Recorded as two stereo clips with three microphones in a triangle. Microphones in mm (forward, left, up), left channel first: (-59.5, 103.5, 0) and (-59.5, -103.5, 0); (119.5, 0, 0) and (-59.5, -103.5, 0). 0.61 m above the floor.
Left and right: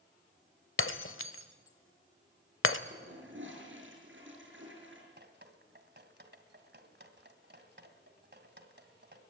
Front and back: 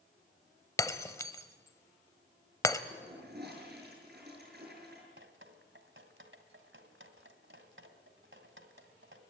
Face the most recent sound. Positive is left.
turn(degrees=-125)